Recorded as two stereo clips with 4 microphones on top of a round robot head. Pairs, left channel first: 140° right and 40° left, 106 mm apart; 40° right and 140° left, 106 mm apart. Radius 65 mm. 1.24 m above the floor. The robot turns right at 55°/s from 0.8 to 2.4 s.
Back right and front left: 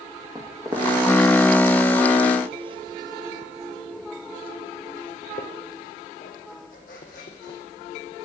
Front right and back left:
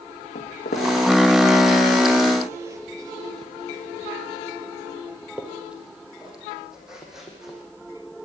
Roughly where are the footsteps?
Ahead right.